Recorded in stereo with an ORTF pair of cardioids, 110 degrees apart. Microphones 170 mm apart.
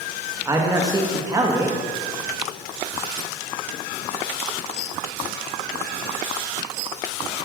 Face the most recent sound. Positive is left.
turn(degrees=-20)